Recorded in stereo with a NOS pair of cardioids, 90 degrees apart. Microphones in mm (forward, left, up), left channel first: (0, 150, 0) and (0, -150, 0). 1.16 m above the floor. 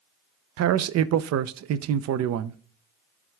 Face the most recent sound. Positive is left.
turn(degrees=-65)